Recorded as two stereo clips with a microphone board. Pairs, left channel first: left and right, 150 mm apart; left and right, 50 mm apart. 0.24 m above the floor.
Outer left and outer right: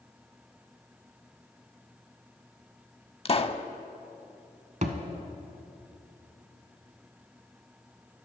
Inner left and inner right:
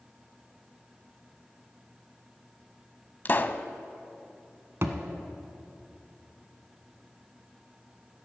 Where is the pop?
40° left (ahead or behind), 0.5 m.